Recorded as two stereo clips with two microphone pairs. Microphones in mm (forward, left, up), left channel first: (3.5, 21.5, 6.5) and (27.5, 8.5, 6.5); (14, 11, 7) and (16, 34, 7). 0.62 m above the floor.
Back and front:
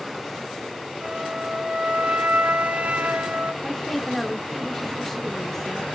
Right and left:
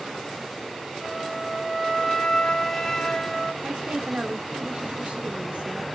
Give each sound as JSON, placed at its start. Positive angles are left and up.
{"t": 1.0, "sound": "a flute", "azimuth_deg": -25, "distance_m": 1.4}
{"t": 3.6, "sound": "a woman speaking", "azimuth_deg": 80, "distance_m": 1.6}